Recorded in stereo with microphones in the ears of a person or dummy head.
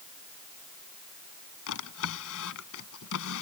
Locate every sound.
1.7 s a drawer: 70° left (ahead or behind)